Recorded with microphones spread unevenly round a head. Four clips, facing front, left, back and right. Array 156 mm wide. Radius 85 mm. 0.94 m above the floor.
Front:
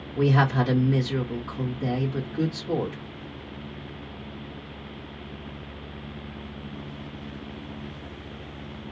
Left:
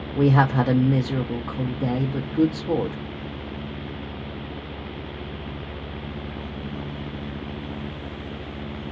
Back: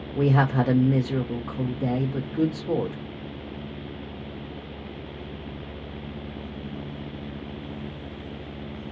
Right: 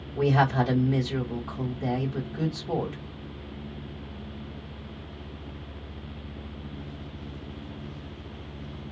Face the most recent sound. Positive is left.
turn(degrees=110)